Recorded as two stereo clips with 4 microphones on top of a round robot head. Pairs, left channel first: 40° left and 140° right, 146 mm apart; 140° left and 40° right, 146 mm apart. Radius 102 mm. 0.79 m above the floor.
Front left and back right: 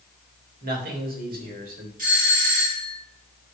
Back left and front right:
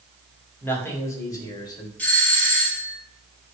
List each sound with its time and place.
0.6 s a man speaking: 145° right, 2.5 m; by 1.9 s 160° right, 3 m
2.0 s a doorbell: 140° right, 2.5 m